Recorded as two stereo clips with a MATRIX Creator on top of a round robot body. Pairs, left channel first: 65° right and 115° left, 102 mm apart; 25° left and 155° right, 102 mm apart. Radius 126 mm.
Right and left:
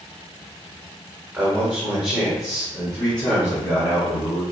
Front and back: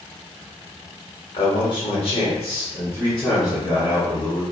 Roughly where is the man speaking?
Ahead left.